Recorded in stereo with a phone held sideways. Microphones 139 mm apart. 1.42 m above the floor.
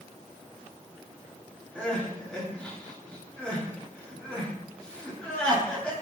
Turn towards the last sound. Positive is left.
turn(degrees=10)  # may be behind; listen again after turning